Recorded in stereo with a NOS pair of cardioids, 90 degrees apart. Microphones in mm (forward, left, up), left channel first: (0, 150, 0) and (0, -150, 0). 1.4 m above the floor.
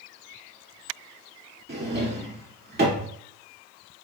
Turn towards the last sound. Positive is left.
turn(degrees=-35)